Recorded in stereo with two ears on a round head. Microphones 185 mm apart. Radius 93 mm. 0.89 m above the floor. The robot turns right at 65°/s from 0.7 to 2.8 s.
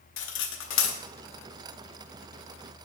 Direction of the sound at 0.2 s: 60° left (ahead or behind).